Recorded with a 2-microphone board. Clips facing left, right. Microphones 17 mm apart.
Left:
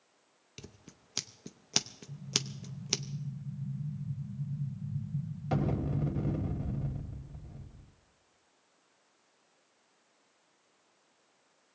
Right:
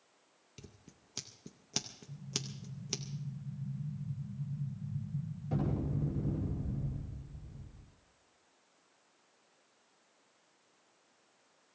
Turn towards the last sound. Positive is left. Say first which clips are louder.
# left 7 dB
turn(degrees=70)  # may be behind; listen again after turning